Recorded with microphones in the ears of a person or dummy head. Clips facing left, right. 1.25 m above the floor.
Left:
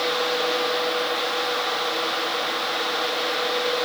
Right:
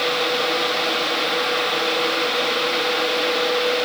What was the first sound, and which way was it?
Only background noise.